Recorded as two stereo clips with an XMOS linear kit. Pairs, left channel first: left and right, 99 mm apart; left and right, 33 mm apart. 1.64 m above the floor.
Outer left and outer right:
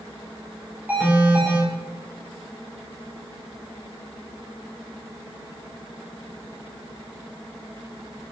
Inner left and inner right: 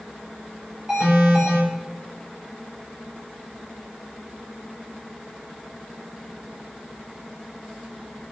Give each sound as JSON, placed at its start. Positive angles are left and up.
{"t": 0.9, "sound": "an alarm", "side_deg": -15, "distance_m": 5.0}